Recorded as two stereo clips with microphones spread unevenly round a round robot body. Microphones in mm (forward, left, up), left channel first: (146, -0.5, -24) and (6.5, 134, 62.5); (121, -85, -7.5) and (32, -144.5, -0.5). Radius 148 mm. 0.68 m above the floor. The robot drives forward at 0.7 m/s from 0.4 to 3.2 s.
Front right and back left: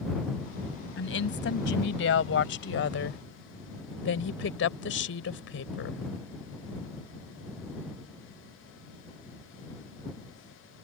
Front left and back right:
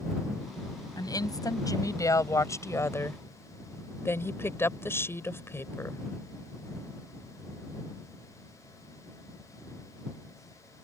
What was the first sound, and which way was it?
A woman speaking, 20° right.